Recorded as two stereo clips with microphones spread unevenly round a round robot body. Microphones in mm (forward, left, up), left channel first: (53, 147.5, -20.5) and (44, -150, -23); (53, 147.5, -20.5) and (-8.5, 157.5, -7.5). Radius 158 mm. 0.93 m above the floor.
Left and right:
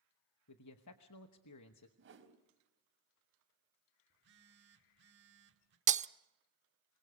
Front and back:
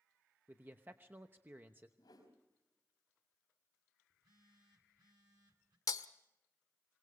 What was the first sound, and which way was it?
A man speaking, 105° left.